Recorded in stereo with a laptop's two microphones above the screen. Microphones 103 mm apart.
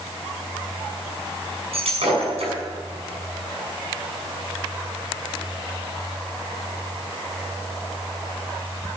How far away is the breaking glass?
About 6.5 m.